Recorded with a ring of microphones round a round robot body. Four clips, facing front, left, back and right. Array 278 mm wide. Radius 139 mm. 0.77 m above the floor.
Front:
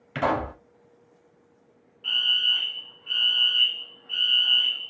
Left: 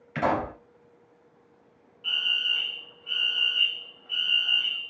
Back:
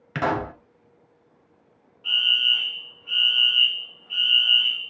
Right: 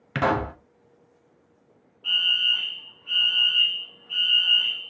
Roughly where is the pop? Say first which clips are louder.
Right 2 dB, even; behind right.